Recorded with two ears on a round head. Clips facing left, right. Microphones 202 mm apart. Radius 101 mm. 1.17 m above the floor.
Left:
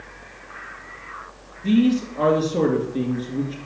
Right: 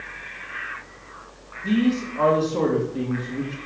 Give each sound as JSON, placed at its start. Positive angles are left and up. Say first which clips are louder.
{"t": 1.6, "sound": "a man speaking", "louder": "left 3 dB", "side_deg": 15, "distance_m": 1.9}